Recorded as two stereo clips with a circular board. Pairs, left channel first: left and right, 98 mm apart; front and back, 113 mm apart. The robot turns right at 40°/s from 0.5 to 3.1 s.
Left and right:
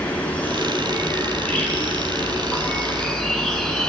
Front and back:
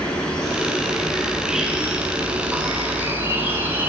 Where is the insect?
65° left, 1.1 m; by 3.9 s 170° left, 1.1 m.